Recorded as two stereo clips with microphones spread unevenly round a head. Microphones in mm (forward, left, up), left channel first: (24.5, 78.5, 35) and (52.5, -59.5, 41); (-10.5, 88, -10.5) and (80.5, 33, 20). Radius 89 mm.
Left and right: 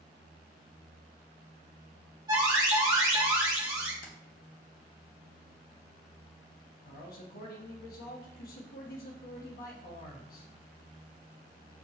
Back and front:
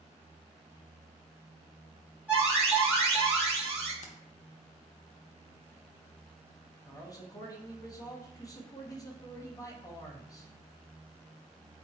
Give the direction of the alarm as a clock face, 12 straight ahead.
5 o'clock.